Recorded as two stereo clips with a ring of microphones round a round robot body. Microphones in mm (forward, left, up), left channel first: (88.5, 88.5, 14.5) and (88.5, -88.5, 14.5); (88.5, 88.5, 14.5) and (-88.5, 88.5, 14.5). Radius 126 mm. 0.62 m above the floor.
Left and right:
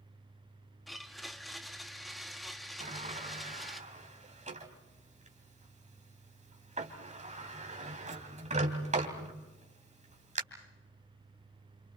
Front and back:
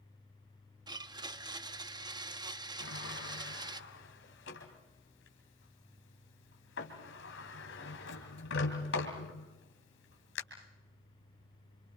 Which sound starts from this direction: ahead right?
A sliding door, at 2.8 s.